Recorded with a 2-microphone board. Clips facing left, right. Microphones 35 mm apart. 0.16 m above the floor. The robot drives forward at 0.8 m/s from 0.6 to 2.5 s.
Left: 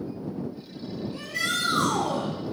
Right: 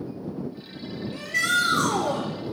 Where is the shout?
55° right (ahead or behind), 3 m; by 2.3 s 60° right (ahead or behind), 3 m.